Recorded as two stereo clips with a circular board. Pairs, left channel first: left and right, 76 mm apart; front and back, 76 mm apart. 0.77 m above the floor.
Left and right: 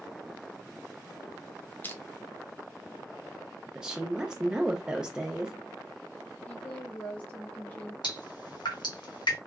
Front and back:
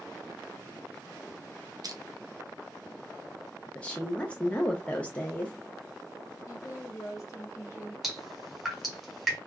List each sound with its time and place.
1.8 s crushing: 155° left, 0.6 m
3.8 s a woman speaking: 30° right, 0.5 m
6.5 s a woman speaking: 25° left, 1.4 m
8.0 s dripping: 95° left, 1.2 m